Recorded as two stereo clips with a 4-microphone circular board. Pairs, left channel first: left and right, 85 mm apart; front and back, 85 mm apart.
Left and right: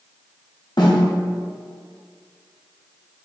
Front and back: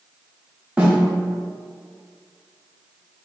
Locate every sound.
0.8 s a snare drum: 105° left, 1.0 m